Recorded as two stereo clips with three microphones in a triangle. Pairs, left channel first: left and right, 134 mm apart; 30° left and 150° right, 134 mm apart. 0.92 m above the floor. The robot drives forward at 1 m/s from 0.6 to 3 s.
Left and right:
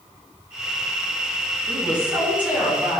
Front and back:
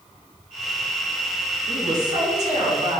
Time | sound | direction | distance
1.7 | a woman speaking | 165° right | 3.5 m